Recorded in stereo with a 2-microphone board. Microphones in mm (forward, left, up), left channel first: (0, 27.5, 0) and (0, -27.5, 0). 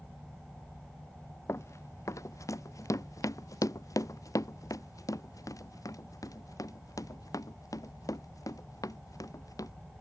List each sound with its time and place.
1.5 s running footsteps: 60° left (ahead or behind); by 9.7 s 90° left